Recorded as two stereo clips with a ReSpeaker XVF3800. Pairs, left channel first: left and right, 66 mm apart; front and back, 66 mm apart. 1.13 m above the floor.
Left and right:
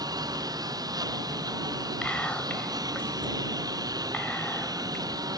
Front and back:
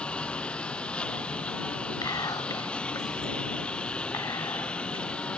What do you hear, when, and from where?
0.0 s a lawn mower: 75° right
2.0 s whispering: 15° left